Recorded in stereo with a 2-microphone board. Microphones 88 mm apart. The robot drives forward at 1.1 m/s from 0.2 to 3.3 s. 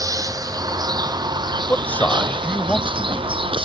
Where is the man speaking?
20° left (ahead or behind); by 3.4 s 10° left (ahead or behind).